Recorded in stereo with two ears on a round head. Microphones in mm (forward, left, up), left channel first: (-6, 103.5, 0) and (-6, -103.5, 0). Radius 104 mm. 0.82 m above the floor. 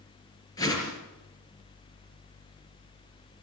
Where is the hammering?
No hammering in this recording.